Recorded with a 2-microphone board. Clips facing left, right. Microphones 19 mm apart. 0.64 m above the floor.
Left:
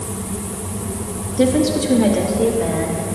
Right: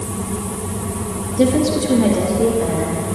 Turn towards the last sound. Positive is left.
turn(degrees=30)  # may be behind; listen again after turning